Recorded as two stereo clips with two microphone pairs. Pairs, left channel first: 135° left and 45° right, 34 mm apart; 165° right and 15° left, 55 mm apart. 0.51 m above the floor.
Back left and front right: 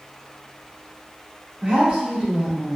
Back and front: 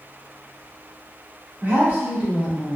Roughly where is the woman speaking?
Ahead.